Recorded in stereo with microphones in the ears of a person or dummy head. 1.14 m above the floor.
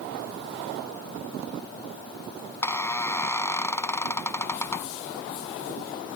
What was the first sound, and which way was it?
A squeak, 10° left (ahead or behind).